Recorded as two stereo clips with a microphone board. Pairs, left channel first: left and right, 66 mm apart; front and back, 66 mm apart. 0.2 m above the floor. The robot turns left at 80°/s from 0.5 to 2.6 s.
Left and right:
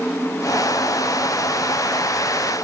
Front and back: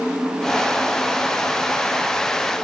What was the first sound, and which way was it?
Only background noise.